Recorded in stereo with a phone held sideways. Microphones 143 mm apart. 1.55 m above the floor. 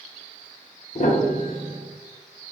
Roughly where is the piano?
Left.